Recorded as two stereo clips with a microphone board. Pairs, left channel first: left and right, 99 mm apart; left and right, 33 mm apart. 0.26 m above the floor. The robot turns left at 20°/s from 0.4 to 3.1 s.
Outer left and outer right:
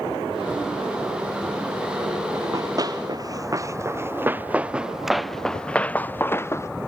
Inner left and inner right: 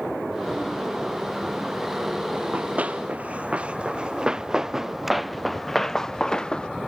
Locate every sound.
2.3 s running footsteps: 35° right (ahead or behind); by 6.7 s 30° left (ahead or behind)